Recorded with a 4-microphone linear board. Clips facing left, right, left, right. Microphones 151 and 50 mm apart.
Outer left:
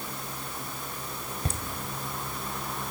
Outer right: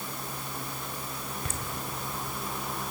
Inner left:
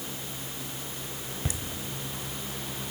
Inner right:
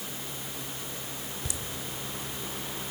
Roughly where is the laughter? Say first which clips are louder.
Outer left 7 dB, inner left 7 dB; left.